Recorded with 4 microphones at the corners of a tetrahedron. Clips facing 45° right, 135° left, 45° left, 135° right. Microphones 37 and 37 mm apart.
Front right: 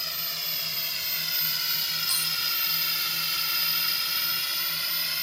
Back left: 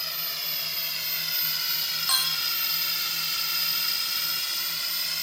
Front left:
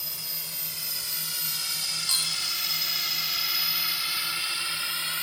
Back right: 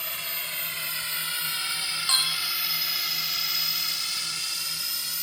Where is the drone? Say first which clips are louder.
Even, back right 6 dB; 135° right; by 5.2 s 30° left.